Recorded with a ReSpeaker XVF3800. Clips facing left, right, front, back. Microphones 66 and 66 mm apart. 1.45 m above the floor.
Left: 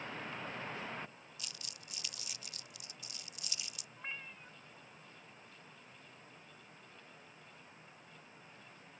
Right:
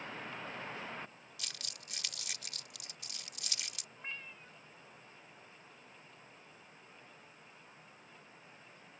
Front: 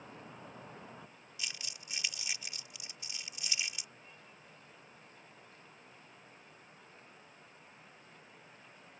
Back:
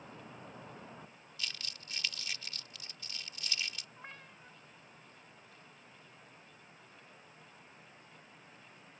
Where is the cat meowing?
170° left.